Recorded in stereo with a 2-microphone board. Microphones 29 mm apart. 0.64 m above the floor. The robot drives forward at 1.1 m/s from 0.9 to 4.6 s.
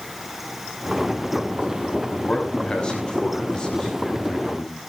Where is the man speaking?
30° left (ahead or behind), 5 m; by 4.8 s 20° left (ahead or behind), 7.5 m.